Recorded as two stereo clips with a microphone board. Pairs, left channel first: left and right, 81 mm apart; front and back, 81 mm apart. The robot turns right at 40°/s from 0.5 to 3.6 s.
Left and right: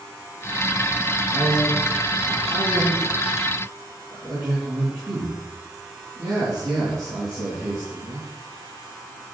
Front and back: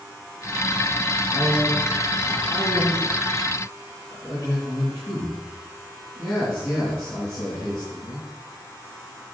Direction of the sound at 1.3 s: 130° right.